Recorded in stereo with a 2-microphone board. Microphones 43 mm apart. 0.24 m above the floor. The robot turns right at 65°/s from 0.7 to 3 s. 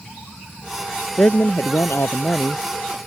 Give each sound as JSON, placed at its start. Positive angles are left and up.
{"t": 1.2, "sound": "a woman speaking", "azimuth_deg": 40}